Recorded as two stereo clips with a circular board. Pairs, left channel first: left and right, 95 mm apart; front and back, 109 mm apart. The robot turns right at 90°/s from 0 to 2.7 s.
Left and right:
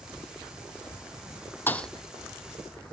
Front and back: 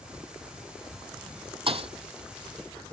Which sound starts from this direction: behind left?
A thud, at 1.7 s.